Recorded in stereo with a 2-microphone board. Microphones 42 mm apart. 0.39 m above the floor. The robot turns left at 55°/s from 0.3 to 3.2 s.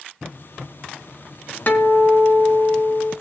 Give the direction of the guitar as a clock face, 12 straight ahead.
10 o'clock.